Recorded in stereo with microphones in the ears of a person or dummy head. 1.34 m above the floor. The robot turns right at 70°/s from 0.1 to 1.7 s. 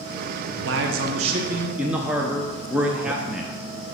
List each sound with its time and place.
0.7 s a man speaking: 85° right, 0.7 m; by 3.6 s 10° right, 0.7 m